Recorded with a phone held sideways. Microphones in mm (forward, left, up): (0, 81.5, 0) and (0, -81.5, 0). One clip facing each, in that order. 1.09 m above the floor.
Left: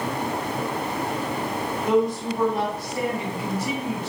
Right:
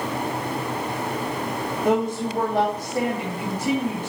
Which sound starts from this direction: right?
A woman speaking, at 1.9 s.